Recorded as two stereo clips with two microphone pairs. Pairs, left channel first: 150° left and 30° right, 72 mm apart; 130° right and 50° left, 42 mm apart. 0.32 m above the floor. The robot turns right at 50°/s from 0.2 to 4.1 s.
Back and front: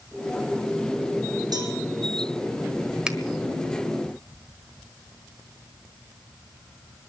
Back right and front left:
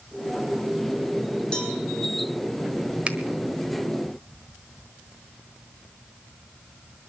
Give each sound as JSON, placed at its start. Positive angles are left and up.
{"t": 1.5, "sound": "a cowbell", "azimuth_deg": -60, "distance_m": 3.5}
{"t": 3.1, "sound": "a finger snap", "azimuth_deg": 35, "distance_m": 1.3}